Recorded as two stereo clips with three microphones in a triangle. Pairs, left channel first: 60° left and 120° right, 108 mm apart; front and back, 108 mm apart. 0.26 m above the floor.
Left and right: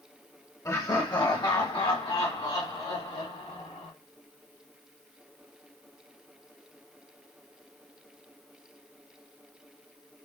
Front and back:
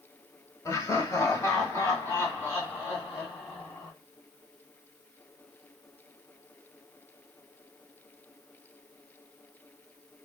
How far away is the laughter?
About 1.0 m.